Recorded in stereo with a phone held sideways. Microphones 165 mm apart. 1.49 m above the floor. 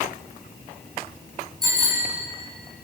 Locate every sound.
1.6 s a bicycle bell: 25° right (ahead or behind), 9 m